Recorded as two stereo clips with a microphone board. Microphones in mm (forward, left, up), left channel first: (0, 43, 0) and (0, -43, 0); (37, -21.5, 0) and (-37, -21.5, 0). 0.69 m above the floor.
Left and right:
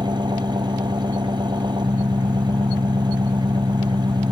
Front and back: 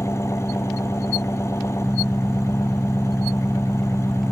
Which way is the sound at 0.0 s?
55° right.